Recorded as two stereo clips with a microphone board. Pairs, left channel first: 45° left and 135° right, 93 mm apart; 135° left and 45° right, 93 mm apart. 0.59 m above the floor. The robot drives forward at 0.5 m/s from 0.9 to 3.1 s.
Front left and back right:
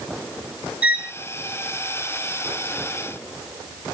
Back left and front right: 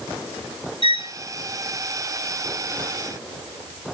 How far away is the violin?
About 4 m.